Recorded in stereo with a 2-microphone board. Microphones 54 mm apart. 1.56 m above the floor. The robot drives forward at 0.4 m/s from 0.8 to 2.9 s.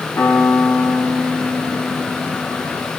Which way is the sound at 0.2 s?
65° left (ahead or behind).